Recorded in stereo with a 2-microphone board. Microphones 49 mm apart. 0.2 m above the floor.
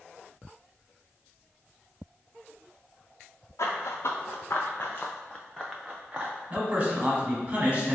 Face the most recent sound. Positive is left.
turn(degrees=-30)  # may be behind; listen again after turning